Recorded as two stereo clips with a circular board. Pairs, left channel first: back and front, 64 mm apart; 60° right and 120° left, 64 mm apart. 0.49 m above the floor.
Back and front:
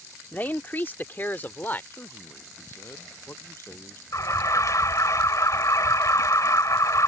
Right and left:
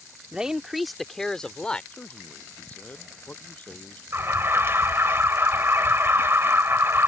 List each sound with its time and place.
0.3 s a man speaking: 175° left; by 1.8 s 130° right
1.9 s a man speaking: 130° right
4.1 s an alarm: 165° left